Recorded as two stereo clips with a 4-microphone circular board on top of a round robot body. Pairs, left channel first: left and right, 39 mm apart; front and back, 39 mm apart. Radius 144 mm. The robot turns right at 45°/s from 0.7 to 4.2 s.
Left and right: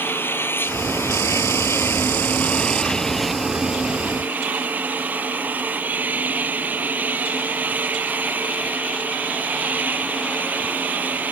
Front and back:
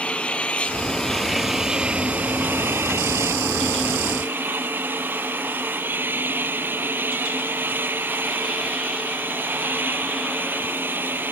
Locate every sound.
0.0 s an engine running: 60° left; by 11.3 s 140° right